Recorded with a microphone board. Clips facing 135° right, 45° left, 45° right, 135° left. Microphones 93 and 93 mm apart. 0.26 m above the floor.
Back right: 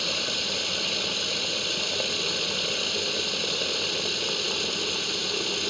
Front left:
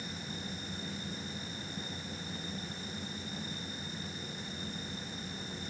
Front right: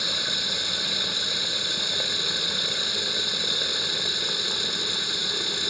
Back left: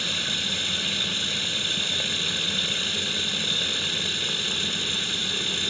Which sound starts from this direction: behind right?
Running water, at 0.0 s.